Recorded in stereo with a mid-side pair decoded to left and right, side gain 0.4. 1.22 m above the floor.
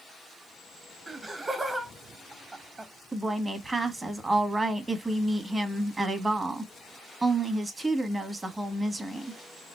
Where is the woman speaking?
30° right, 1.5 m.